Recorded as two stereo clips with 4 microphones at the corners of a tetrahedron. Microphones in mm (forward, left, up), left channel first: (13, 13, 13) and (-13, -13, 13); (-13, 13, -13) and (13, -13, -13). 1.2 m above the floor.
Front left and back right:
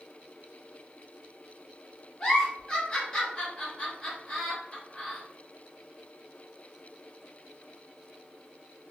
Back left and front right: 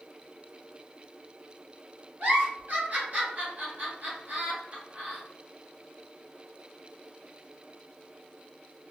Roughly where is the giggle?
Ahead.